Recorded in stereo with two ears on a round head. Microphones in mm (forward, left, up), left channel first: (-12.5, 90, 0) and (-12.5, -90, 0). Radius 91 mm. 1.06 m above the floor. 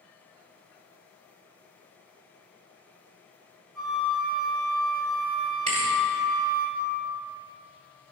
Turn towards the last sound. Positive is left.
turn(degrees=-35)  # may be behind; listen again after turning